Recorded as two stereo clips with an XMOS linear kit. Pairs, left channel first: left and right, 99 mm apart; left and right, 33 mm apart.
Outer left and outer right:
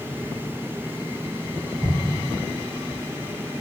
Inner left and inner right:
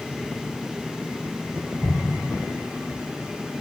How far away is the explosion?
About 1.5 m.